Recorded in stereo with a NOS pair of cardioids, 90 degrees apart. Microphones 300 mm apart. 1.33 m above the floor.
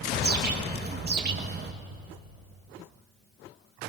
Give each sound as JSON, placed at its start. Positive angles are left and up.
{"t": 0.1, "sound": "a bird", "azimuth_deg": -35, "distance_m": 1.7}